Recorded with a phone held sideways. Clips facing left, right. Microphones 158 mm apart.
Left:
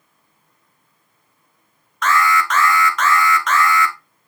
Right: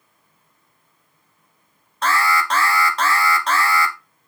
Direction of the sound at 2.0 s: 35° right (ahead or behind).